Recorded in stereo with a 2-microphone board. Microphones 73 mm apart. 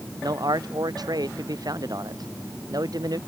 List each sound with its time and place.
0.2 s a man speaking: 60° right (ahead or behind); by 3.2 s 55° right (ahead or behind)